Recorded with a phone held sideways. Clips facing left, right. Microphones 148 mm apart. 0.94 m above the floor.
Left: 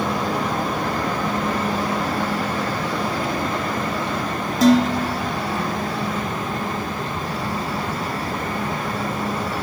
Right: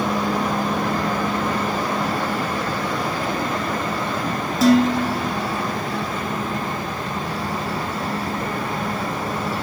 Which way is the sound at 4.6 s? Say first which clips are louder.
Even; 5° right (ahead or behind).